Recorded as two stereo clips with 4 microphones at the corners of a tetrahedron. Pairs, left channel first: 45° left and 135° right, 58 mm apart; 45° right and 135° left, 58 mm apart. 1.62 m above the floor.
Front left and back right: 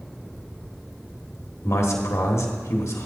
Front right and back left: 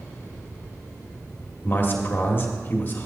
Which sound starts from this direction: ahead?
A man speaking, at 1.6 s.